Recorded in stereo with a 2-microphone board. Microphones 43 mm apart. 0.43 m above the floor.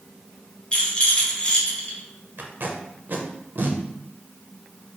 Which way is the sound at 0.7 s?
30° left (ahead or behind).